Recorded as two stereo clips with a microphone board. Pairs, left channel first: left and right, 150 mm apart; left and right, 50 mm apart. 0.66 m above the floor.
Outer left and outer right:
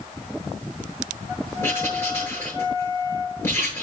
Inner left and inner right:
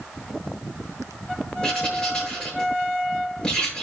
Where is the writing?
15° left (ahead or behind), 7.5 m.